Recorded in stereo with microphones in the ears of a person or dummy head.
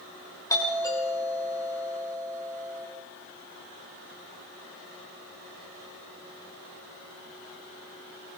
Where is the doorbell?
20° left (ahead or behind), 6.5 m.